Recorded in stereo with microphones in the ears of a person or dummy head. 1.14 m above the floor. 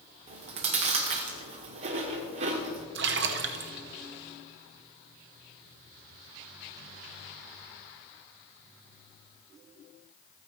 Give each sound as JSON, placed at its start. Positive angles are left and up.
{"t": 0.3, "sound": "chewing", "side_deg": -40, "distance_m": 0.9}
{"t": 3.0, "sound": "a splash", "side_deg": -55, "distance_m": 0.7}